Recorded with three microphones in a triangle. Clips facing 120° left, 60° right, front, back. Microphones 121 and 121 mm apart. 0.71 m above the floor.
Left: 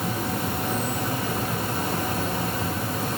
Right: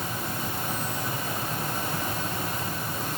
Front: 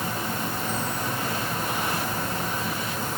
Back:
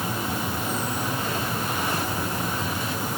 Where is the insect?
105° left, 2.0 m.